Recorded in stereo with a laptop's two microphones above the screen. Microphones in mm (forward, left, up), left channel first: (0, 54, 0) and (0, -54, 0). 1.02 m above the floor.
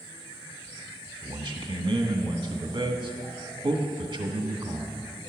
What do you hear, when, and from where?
1.2 s a man speaking: 45° right (ahead or behind), 1.3 m